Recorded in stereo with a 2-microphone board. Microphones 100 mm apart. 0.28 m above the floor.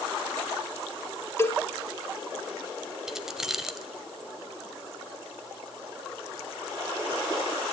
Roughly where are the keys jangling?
Centre.